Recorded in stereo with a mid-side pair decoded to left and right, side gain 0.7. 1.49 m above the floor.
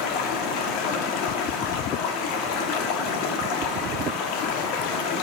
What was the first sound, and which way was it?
Running water, 70° left.